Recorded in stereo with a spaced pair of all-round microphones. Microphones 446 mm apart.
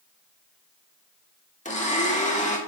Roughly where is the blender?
Centre.